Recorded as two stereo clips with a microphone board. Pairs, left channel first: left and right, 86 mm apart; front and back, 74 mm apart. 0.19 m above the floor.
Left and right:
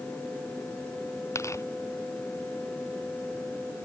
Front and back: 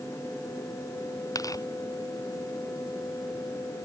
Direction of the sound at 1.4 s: 35° left.